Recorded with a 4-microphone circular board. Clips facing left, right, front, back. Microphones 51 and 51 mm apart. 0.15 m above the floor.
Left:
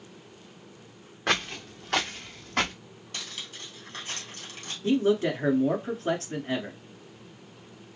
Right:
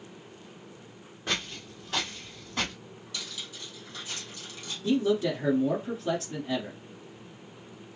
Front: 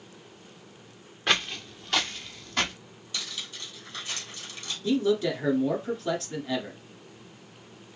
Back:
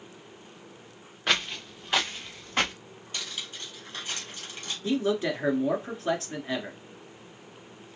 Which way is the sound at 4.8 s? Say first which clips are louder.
Left 2 dB, front 2 dB; 120° left.